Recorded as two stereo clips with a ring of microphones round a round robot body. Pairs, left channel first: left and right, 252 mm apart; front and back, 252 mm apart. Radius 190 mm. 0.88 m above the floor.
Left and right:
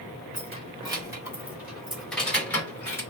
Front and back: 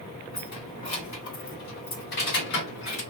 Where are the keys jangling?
25° right, 1.8 m; by 3.0 s 10° left, 2.5 m.